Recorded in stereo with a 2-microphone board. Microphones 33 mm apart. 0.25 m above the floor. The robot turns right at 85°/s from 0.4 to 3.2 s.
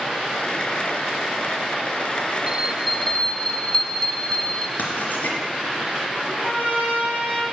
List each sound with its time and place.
2.5 s a bell: 20° right, 1.0 m; by 4.7 s 40° left, 1.0 m
4.8 s writing: 60° left (ahead or behind), 3 m
6.2 s a trumpet: 60° left (ahead or behind), 6 m